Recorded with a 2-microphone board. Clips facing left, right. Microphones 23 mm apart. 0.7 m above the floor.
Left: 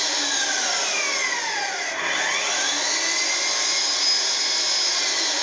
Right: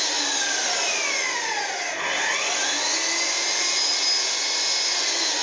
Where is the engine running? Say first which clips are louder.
Left 1 dB; 15° left (ahead or behind), 1.5 m.